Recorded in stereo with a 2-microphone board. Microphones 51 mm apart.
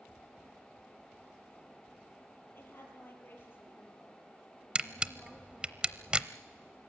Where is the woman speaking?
50° left (ahead or behind), 6 m; by 5.8 s 35° left (ahead or behind), 5 m.